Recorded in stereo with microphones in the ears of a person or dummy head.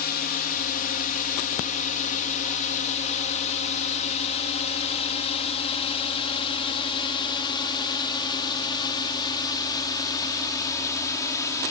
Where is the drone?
50° left (ahead or behind); by 11.7 s 15° left (ahead or behind).